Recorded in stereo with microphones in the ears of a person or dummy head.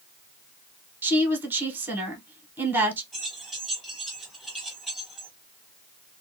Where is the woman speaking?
10° right (ahead or behind), 0.9 m.